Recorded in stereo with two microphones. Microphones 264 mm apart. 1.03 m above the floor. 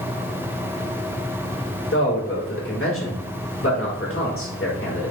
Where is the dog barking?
I don't hear a dog barking.